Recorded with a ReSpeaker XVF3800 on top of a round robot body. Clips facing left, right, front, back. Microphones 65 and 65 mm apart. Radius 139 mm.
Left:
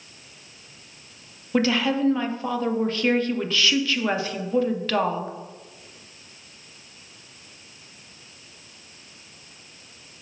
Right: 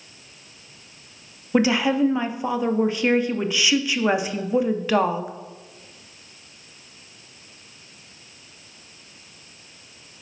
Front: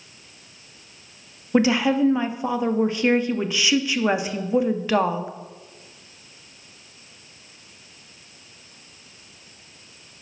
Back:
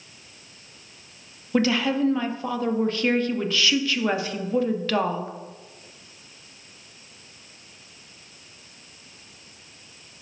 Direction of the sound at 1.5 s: 40° right.